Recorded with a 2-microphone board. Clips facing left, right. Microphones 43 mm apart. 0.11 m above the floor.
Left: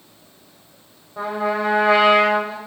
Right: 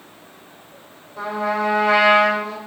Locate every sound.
1.2 s a trumpet: 25° left (ahead or behind), 3 m